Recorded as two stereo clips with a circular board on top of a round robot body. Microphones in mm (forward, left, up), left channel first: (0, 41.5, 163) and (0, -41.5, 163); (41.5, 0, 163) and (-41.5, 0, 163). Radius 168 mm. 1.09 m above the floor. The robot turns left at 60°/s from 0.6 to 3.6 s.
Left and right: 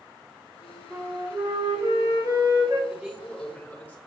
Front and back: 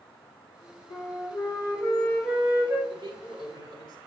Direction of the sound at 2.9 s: 155° right.